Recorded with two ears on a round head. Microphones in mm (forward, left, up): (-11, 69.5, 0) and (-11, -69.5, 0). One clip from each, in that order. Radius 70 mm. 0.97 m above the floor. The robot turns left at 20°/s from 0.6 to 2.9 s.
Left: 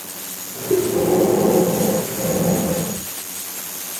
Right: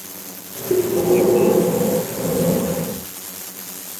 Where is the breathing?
10° right, 7.5 m; by 3.1 s 55° right, 7.5 m.